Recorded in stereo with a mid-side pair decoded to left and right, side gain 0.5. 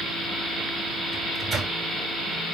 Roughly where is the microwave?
Ahead right.